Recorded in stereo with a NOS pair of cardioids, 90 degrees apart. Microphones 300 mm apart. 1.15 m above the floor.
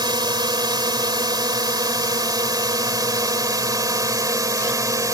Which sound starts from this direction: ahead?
A drone, at 0.0 s.